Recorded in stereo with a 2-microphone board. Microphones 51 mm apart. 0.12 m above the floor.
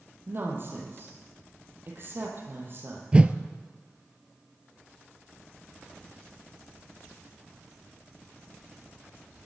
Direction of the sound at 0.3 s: 45° right (ahead or behind).